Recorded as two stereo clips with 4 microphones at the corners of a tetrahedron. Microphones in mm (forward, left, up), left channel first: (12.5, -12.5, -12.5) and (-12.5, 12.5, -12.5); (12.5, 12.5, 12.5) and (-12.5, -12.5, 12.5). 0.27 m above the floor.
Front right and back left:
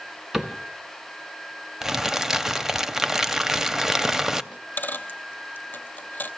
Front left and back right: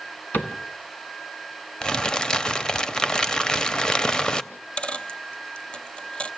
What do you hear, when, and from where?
0.3 s a cupboard door: 55° left, 1.1 m
1.8 s crumpling: 75° left, 0.5 m
4.5 s a dropped coin: 15° right, 0.6 m